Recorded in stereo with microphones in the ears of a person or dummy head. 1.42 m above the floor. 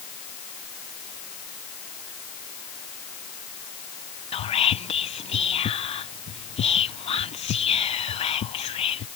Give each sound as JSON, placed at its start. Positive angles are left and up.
{"t": 4.3, "sound": "whispering", "side_deg": 35}